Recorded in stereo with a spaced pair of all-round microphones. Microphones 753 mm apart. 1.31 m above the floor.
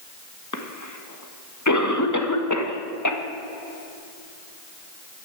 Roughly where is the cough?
Left.